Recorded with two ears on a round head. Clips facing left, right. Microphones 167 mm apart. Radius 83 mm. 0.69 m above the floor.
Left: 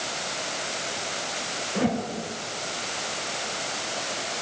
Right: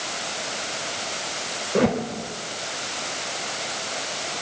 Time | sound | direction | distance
1.8 | a whoosh | 70° right (ahead or behind) | 3 m